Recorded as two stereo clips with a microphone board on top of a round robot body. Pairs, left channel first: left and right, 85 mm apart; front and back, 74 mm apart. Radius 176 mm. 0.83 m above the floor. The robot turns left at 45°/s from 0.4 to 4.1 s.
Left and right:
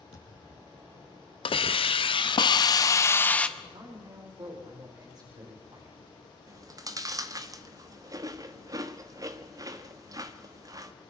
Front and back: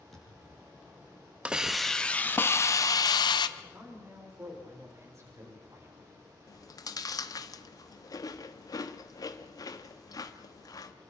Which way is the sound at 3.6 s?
110° right.